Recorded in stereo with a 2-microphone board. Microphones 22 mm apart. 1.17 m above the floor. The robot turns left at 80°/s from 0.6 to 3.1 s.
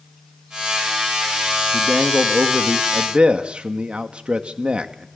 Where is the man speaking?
30° right, 2 m; by 5.1 s 135° right, 2 m.